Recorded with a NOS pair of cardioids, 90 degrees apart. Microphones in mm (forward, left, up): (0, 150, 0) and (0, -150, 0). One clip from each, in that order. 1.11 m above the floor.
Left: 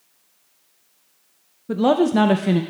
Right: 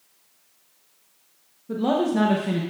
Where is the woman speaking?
35° left, 0.5 m.